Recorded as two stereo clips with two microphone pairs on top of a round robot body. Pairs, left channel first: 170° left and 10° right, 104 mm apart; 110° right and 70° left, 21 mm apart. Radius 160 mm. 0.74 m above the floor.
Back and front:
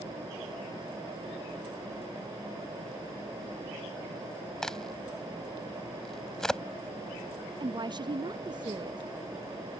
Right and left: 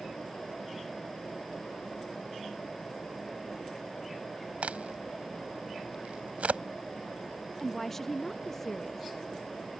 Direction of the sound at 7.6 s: 45° right.